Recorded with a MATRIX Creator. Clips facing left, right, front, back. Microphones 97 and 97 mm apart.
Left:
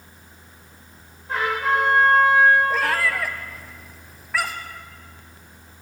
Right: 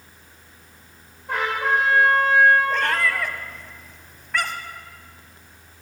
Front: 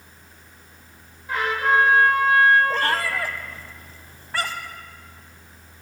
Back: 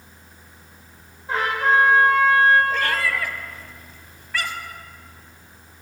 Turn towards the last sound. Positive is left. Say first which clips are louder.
# even, even
turn(degrees=5)